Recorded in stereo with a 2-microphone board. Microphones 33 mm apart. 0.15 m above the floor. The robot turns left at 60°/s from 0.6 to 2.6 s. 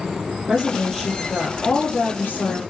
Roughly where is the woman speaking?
Behind right.